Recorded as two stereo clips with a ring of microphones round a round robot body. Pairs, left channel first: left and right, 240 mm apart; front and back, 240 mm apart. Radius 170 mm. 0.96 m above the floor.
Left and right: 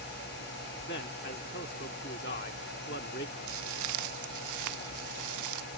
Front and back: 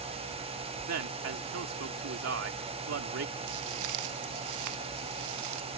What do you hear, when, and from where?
0.9 s a man speaking: 155° left
3.5 s footsteps: 135° right; by 5.7 s 130° right